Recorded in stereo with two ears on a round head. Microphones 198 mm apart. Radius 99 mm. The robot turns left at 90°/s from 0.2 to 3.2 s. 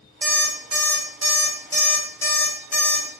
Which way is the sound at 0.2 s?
25° right (ahead or behind).